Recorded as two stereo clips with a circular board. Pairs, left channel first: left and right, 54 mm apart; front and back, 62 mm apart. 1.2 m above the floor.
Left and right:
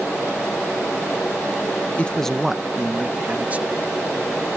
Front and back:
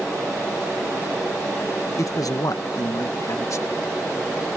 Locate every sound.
2.0 s a man speaking: 30° left; by 4.0 s 35° right